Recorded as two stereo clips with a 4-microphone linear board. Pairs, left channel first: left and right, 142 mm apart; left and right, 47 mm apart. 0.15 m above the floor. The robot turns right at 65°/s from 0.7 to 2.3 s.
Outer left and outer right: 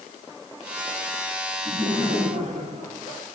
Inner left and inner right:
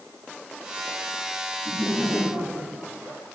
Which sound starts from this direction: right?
Laughter, at 1.6 s.